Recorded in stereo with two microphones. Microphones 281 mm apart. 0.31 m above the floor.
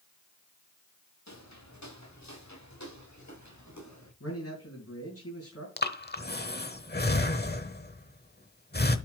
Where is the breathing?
35° left (ahead or behind), 1.0 m.